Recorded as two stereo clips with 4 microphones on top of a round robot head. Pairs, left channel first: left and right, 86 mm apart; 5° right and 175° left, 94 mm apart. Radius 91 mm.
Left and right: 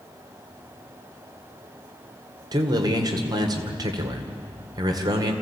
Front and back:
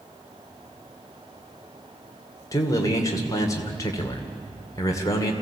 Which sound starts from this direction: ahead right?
A man speaking, at 2.5 s.